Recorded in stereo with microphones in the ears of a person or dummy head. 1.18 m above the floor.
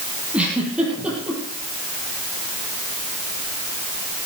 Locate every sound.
0.3 s a giggle: 10° right (ahead or behind), 5 m